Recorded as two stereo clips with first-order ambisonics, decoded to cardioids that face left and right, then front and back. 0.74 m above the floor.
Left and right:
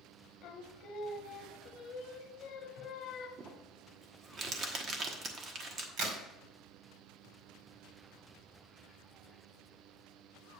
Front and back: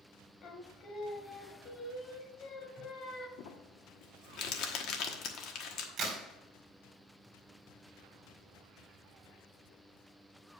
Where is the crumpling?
30° right, 1.1 m.